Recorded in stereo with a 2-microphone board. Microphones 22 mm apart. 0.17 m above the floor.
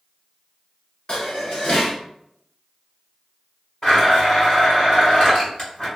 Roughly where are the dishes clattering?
Left.